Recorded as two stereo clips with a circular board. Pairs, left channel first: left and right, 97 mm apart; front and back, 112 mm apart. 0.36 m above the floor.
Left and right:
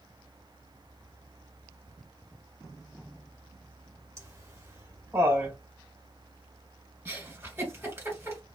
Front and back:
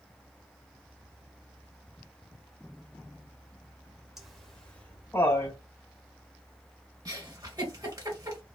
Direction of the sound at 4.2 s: 95° right.